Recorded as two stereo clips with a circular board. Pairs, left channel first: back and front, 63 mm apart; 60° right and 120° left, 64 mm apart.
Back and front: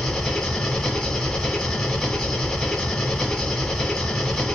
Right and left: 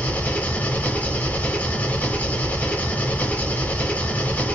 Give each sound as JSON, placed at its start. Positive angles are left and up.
{"t": 0.0, "sound": "an engine running", "azimuth_deg": -100, "distance_m": 1.4}